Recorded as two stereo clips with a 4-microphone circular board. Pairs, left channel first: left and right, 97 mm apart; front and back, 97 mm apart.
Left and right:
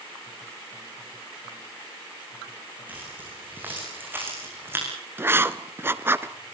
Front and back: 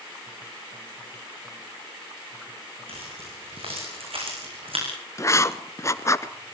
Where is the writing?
40° right, 0.8 m.